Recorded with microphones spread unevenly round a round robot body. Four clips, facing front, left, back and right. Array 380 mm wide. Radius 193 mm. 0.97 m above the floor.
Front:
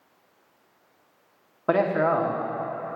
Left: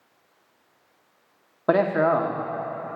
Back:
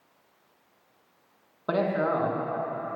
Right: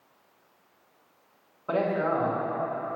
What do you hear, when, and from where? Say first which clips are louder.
1.7 s a man speaking: left 6 dB, front 4 dB; 80° left, 1.0 m